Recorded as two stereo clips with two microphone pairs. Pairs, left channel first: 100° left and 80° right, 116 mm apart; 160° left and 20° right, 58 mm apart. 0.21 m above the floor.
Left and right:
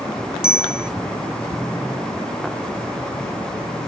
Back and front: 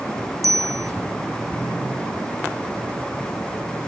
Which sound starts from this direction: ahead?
A bicycle bell, at 0.4 s.